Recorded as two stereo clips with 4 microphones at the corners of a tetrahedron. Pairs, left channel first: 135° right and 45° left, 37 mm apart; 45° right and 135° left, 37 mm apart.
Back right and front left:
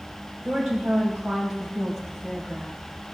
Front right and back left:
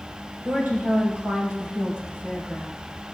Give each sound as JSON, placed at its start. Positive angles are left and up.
{"t": 0.5, "sound": "a woman speaking", "azimuth_deg": 115, "distance_m": 3.5}